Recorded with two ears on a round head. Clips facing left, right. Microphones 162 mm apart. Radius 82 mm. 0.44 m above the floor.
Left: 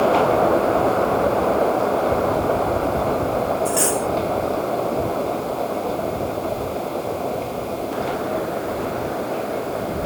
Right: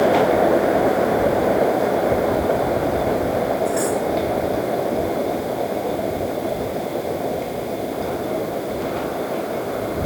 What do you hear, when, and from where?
3.6 s cutlery clinking: 30° left (ahead or behind)